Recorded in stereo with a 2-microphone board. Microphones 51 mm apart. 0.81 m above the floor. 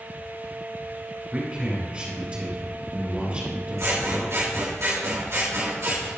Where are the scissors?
75° right (ahead or behind), 3 m.